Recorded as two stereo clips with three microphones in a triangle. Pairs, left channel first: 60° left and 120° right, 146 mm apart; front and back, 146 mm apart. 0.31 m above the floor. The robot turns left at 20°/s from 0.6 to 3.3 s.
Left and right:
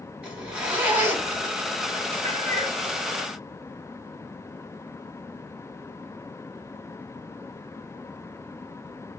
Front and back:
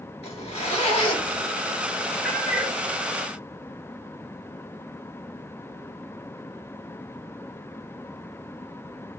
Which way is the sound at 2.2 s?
95° right.